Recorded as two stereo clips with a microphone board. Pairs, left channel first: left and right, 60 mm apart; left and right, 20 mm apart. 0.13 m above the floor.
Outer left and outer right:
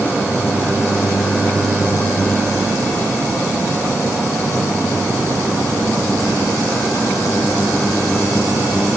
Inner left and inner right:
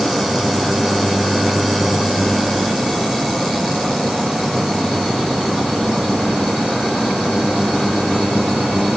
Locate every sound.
Only background noise.